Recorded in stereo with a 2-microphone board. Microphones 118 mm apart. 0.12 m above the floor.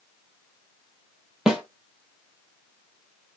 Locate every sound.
1.5 s a snare drum: 5° right (ahead or behind), 0.6 m